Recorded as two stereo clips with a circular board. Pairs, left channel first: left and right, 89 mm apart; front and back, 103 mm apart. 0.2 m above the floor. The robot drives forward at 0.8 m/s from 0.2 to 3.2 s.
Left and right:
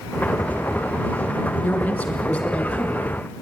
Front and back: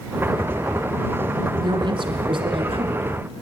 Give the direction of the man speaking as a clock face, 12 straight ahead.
7 o'clock.